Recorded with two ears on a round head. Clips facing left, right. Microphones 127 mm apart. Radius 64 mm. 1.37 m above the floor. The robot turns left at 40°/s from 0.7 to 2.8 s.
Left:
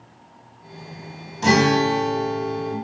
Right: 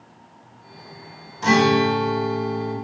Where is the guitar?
145° left, 3.5 m; by 2.8 s 95° left, 3.5 m.